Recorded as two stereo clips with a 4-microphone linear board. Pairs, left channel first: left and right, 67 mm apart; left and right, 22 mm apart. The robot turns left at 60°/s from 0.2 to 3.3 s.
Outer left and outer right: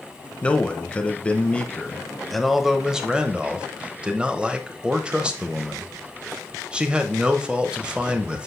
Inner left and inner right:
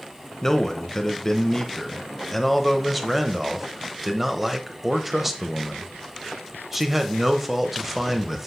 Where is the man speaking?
15° left (ahead or behind), 0.9 m; by 8.5 s 15° right (ahead or behind), 0.9 m.